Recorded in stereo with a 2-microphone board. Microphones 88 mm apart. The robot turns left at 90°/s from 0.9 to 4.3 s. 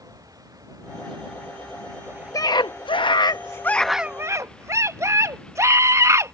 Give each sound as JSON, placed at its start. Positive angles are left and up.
{"t": 0.0, "sound": "a vehicle", "azimuth_deg": -40}
{"t": 2.3, "sound": "a scream", "azimuth_deg": 140}